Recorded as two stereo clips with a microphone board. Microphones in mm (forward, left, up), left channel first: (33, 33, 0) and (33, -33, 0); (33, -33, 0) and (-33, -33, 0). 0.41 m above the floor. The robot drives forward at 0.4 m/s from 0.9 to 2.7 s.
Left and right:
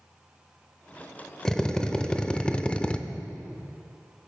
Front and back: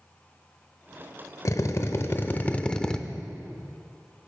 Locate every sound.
1.4 s a drill: 10° left, 0.8 m; by 3.0 s 50° left, 0.5 m